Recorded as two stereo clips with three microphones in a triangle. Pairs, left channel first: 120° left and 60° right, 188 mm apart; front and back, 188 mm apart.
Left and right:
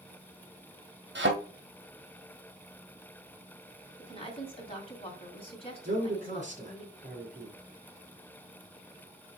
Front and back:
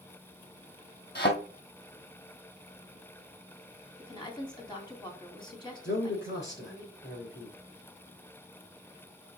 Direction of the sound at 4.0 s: 65° left.